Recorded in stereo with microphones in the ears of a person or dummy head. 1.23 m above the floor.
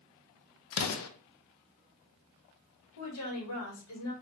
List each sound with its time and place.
0.7 s an explosion: 80° left, 0.7 m
3.0 s a woman speaking: 85° left, 1.8 m